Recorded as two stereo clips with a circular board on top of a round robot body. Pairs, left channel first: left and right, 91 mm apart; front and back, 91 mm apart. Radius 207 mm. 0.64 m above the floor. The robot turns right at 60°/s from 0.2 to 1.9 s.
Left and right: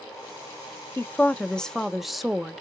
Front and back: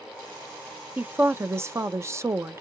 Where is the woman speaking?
130° left, 0.7 m; by 2.6 s 175° right, 0.7 m.